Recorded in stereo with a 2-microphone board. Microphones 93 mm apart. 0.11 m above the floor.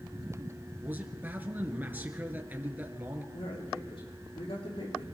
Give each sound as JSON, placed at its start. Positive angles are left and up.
{"t": 0.8, "sound": "a man speaking", "side_deg": -20, "distance_m": 2.0}
{"t": 3.3, "sound": "a man speaking", "side_deg": 75, "distance_m": 6.0}